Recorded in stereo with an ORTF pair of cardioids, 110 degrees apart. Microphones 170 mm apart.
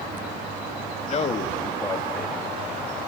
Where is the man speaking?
45° left, 2.5 m; by 3.1 s 10° right, 3.5 m.